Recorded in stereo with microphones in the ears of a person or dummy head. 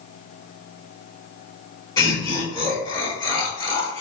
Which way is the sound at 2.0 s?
15° left (ahead or behind).